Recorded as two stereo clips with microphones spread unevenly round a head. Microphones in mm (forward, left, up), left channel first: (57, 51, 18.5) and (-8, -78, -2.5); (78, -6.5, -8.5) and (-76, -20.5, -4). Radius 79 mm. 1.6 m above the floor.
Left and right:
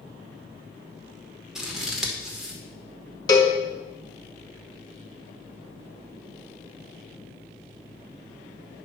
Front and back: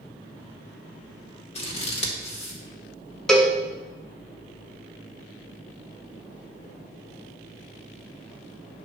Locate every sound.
1.6 s scissors: 20° right, 1.6 m
3.3 s a cowbell: 90° left, 1.1 m